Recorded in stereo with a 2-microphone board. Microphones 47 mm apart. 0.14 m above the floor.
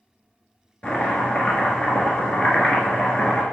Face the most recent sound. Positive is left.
turn(degrees=25)  # may be behind; listen again after turning